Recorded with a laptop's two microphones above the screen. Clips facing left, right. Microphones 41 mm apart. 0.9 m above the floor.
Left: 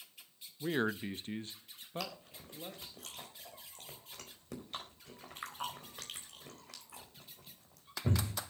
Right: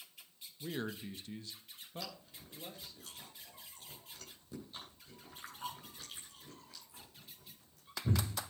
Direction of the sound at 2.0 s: 85° left.